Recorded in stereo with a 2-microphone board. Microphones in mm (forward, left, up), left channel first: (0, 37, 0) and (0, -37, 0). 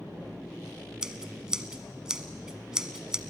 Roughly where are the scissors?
Centre.